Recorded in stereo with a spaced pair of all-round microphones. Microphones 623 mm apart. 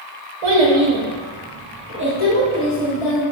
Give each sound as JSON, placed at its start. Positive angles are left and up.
{"t": 0.4, "sound": "a child speaking", "side_deg": -70, "distance_m": 0.8}